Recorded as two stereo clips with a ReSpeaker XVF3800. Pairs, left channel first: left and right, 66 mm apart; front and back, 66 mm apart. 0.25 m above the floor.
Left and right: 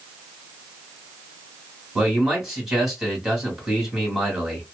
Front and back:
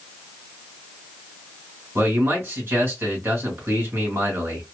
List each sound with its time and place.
1.9 s a man speaking: 170° right, 1.6 m